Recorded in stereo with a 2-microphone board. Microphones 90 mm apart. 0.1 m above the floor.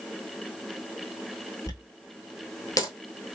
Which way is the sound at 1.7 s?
40° left (ahead or behind).